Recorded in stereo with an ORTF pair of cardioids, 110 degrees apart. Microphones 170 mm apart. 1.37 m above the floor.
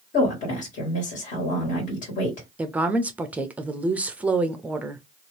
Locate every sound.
0.1 s a woman speaking: 50° left, 1.6 m
2.6 s a woman speaking: 10° right, 0.5 m